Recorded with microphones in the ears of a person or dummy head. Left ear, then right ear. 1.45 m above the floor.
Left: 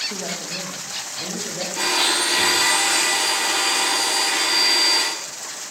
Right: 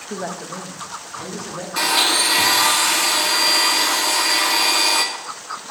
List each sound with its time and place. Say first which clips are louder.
0.1 s a woman speaking: even; 60° right (ahead or behind), 1.4 m; by 1.7 s 10° left (ahead or behind), 2.5 m
1.8 s a blender: right 3 dB; 75° right (ahead or behind), 1.9 m